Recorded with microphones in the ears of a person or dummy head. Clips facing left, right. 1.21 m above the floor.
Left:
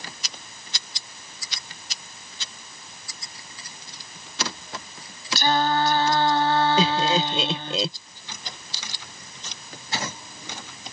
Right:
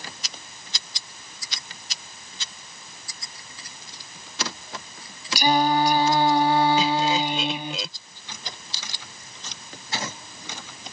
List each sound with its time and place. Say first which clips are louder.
5.3 s singing: right 2 dB; 10° right (ahead or behind)
6.8 s laughter: left 1 dB; 30° left (ahead or behind)